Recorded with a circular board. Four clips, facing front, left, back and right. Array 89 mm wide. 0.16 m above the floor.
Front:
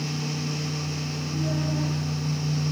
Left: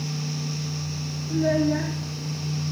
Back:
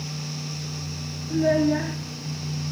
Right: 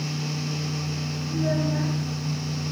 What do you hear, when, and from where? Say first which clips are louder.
1.3 s a child speaking: left 5 dB, back 10 dB; 155° left, 2.5 m